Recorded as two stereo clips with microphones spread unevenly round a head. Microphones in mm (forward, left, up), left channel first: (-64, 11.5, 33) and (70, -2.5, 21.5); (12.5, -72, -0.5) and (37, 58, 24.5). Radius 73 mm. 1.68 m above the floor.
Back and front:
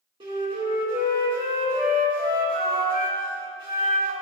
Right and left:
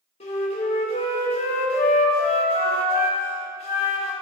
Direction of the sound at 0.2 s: 60° right.